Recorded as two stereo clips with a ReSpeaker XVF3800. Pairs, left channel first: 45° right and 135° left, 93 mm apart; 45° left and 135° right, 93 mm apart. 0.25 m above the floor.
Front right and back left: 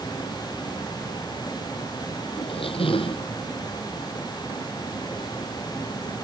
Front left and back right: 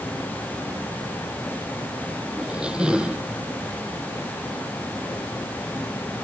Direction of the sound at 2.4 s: 55° right.